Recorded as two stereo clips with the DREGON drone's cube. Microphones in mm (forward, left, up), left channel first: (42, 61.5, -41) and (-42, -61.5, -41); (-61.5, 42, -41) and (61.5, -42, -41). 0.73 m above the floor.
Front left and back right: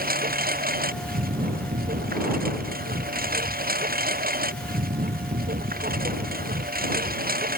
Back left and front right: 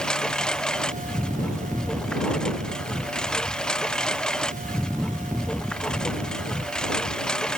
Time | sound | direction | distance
0.0 | a lawn mower | 130° right | ?